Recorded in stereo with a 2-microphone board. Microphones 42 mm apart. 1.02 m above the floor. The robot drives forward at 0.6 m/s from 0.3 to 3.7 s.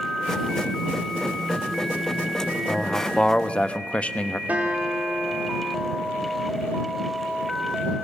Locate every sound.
2.7 s a man speaking: 20° left (ahead or behind), 1.6 m; by 4.4 s 30° left (ahead or behind), 1.0 m
4.5 s a guitar: 40° right (ahead or behind), 3.5 m